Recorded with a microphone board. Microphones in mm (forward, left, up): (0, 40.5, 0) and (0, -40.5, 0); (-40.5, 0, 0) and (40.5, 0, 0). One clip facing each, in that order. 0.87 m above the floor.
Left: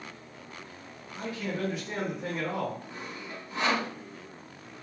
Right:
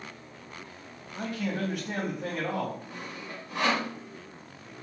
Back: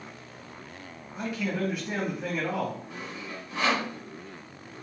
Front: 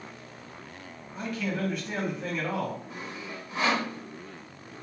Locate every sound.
1.1 s a man speaking: 95° right, 1.6 m
2.9 s sawing: 75° right, 1.6 m